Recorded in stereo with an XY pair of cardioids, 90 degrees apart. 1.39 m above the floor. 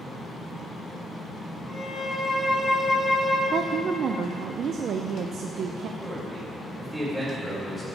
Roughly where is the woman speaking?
Ahead right.